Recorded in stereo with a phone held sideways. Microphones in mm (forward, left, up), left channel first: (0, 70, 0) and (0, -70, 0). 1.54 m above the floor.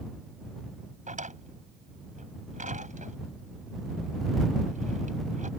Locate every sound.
1.1 s a drawer: 65° right (ahead or behind)